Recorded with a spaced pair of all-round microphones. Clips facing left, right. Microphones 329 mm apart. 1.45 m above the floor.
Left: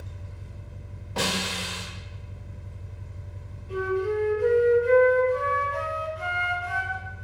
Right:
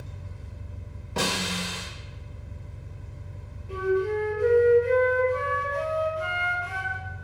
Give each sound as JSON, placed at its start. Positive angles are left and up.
{"t": 0.0, "sound": "an engine running", "side_deg": -5, "distance_m": 1.2}
{"t": 1.2, "sound": "a snare drum", "side_deg": -30, "distance_m": 1.0}
{"t": 3.7, "sound": "a flute", "side_deg": -35, "distance_m": 1.0}